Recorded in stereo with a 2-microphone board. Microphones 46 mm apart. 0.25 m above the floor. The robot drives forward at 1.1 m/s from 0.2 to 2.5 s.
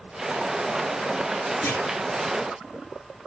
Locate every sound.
1.6 s a clunk: 70° left (ahead or behind), 3.5 m